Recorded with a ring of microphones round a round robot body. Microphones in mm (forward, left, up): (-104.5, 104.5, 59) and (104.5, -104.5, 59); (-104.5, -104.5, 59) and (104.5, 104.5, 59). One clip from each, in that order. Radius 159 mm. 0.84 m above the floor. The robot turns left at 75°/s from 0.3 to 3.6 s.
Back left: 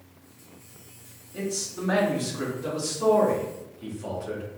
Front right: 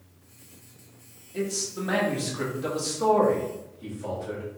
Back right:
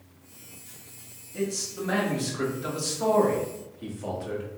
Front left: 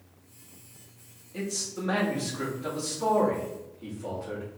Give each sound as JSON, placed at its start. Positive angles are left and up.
{"t": 1.3, "sound": "a man speaking", "azimuth_deg": 20, "distance_m": 1.7}